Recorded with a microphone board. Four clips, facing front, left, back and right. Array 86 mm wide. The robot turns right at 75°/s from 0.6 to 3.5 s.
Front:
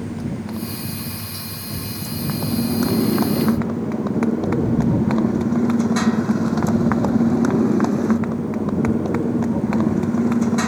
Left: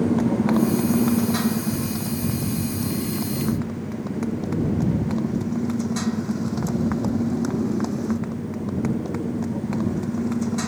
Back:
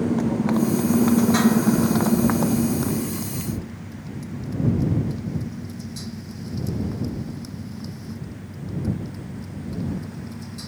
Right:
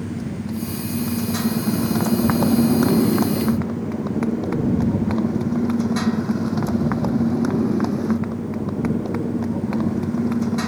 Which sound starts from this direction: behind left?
A motorcycle, at 0.0 s.